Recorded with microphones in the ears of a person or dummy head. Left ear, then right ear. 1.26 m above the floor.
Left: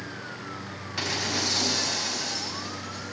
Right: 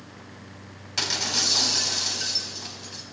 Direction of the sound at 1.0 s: 30° right (ahead or behind).